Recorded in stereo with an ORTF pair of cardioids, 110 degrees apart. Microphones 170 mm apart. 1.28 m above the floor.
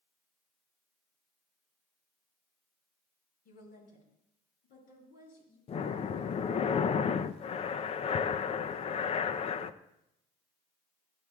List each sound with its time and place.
3.5 s a woman speaking: 65° left, 6 m; by 5.6 s 60° left, 9 m
5.7 s breathing: 40° left, 0.6 m